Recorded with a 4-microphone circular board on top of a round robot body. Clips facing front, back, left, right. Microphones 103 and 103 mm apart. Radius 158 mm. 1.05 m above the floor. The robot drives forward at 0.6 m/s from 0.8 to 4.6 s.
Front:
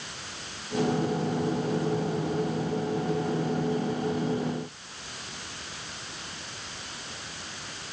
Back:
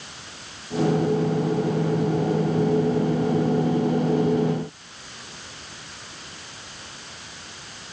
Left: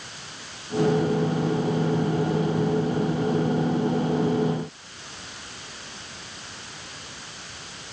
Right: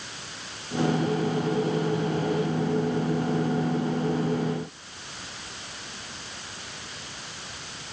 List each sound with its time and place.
Only background noise.